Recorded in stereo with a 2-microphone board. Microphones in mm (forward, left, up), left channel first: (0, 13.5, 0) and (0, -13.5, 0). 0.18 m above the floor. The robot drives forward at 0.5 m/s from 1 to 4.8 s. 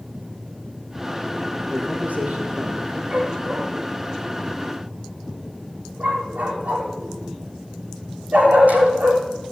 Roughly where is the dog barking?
Right.